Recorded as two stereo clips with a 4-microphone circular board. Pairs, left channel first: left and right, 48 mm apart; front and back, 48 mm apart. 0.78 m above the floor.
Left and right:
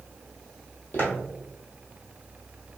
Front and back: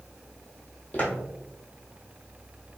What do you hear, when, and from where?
0.9 s footsteps: 55° left, 1.5 m